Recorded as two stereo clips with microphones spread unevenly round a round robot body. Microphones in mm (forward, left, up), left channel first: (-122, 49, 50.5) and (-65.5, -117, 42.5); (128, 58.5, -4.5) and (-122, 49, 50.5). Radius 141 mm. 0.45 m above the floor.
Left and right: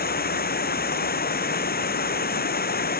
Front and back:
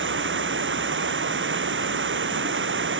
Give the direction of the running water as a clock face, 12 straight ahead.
7 o'clock.